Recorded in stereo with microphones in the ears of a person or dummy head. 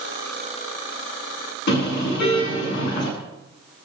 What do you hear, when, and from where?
1.7 s a car horn: 55° left (ahead or behind), 9.5 m